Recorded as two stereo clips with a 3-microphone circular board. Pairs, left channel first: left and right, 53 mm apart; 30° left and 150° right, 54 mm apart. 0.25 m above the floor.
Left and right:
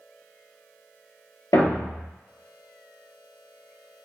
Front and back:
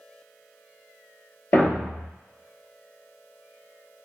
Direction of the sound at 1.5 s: 85° left.